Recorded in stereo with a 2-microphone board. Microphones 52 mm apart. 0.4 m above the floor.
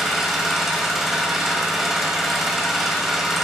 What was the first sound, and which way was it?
An engine running, 10° right (ahead or behind).